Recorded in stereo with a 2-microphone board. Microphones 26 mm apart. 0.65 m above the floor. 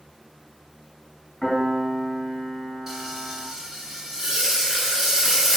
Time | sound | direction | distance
1.4 | a piano | 25° left (ahead or behind) | 1.5 m
2.9 | frying | 20° right (ahead or behind) | 1.6 m